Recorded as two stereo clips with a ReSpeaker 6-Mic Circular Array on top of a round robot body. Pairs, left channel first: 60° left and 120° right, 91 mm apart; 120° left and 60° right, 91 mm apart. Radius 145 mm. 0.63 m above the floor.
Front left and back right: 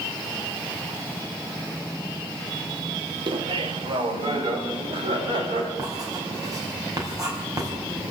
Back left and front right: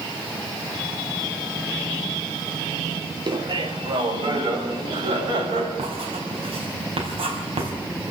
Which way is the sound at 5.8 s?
70° right.